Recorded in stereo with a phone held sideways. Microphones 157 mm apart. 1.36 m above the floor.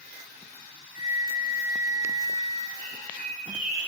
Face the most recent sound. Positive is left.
turn(degrees=-70)  # may be behind; listen again after turning